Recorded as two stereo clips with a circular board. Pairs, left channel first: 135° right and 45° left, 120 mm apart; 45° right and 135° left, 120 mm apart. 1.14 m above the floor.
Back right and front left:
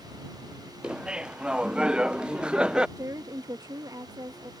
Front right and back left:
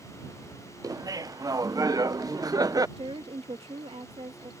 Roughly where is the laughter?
Behind left.